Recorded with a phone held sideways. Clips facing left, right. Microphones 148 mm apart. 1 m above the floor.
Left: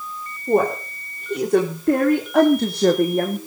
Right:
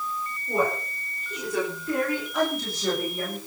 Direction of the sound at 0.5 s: 60° left (ahead or behind).